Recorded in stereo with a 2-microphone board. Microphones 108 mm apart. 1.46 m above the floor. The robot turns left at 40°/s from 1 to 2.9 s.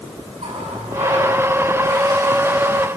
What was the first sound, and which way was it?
A running tap, 100° right.